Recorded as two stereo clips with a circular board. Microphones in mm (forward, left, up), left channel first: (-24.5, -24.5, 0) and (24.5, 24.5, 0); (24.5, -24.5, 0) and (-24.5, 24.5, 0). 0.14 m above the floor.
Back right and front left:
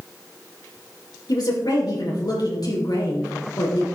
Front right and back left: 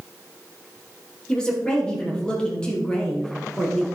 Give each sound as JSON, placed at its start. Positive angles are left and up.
{"t": 1.3, "sound": "a woman speaking", "azimuth_deg": -120, "distance_m": 3.5}